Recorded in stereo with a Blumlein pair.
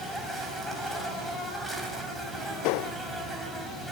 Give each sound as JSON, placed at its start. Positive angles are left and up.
{"t": 0.0, "sound": "an insect", "azimuth_deg": -5, "distance_m": 4.5}